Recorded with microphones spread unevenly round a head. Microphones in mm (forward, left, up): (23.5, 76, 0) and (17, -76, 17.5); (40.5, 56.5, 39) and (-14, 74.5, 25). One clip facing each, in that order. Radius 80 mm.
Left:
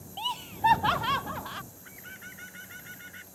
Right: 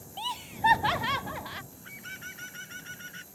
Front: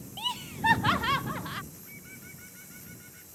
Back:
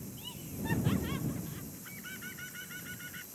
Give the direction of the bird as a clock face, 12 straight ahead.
5 o'clock.